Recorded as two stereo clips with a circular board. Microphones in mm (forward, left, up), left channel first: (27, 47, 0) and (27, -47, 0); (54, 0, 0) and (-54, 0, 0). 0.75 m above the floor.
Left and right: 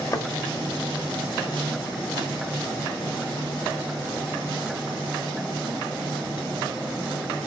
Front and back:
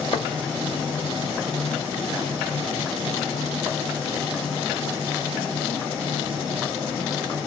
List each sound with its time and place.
0.1 s a thud: 35° left, 1.0 m